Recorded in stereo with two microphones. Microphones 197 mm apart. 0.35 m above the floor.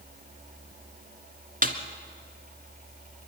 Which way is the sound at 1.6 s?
45° right (ahead or behind).